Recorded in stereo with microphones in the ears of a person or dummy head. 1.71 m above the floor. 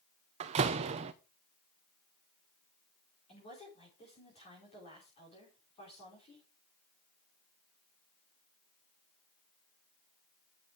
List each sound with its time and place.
0.4 s a door slam: 35° right (ahead or behind), 0.9 m
3.3 s a woman speaking: 35° left (ahead or behind), 5 m